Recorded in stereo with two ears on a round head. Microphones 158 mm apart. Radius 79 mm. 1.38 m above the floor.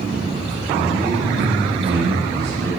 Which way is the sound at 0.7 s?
65° right (ahead or behind).